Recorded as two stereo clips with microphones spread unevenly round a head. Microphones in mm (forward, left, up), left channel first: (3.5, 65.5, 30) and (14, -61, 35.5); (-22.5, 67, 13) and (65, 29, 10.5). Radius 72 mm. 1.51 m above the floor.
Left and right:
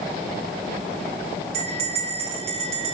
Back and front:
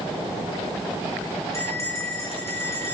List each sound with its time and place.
1.5 s a bell: 130° right, 4.5 m